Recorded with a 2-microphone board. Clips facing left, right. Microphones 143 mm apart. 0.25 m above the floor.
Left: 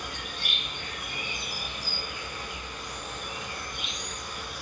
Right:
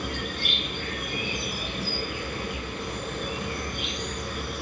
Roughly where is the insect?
Right.